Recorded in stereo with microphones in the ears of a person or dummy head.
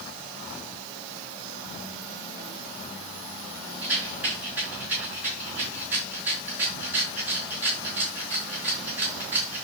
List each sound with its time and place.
3.8 s a rattle: 10° right (ahead or behind), 4.5 m